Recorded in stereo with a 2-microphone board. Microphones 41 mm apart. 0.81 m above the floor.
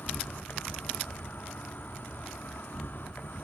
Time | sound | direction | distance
0.0 | an insect | 55° left (ahead or behind) | 1.2 m